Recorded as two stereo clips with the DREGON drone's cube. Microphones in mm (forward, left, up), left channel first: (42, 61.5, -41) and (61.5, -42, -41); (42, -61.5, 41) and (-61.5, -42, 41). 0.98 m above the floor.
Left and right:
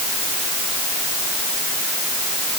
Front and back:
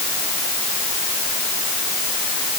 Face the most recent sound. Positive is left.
No sound to turn to.